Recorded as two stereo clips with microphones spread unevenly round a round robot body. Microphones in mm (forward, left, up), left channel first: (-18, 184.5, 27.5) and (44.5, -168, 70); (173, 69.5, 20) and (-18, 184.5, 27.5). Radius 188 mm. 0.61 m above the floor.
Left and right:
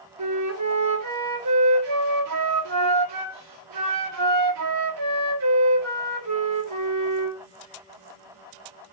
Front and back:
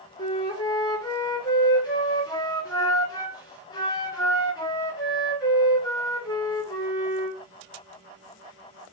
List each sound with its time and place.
0.2 s a flute: 95° right, 1.5 m